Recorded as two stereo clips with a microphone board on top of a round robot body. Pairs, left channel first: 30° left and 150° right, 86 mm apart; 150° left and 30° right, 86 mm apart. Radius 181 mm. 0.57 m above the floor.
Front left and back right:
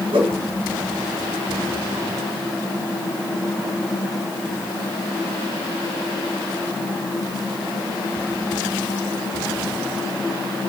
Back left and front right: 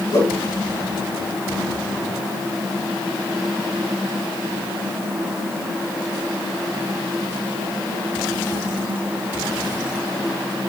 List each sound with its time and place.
0.1 s a whoosh: 165° right, 4 m